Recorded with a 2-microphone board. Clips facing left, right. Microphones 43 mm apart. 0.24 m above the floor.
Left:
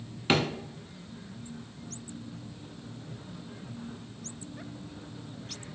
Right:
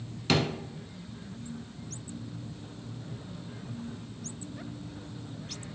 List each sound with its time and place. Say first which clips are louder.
0.3 s a drawer: left 1 dB; 25° left (ahead or behind), 0.6 m